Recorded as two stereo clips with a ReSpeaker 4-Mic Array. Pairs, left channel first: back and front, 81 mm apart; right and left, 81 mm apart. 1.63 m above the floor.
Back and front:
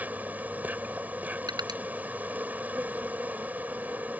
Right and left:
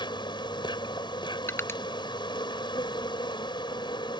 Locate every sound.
0.0 s an insect: 70° right
1.5 s crushing: 30° right